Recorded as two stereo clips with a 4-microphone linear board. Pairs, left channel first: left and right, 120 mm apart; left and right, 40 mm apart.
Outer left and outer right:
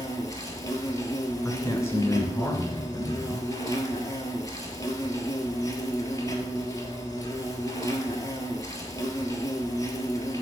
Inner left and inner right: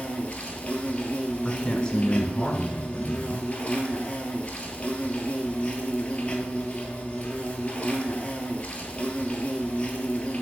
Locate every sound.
0.0 s an insect: 30° left (ahead or behind), 1.1 m
1.4 s a man speaking: 25° left (ahead or behind), 1.3 m